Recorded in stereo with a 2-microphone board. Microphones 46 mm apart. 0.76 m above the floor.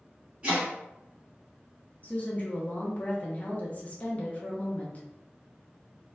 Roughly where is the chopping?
Right.